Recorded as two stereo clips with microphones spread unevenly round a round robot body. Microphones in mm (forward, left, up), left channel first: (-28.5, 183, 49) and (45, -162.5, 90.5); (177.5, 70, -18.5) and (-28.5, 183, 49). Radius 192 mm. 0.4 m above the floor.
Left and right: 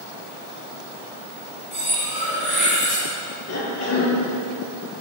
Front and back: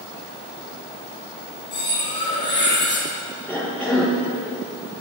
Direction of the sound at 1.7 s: 15° left.